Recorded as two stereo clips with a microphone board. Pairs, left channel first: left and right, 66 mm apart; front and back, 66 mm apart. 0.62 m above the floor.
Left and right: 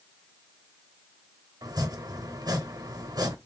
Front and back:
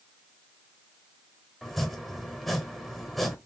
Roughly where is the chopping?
Right.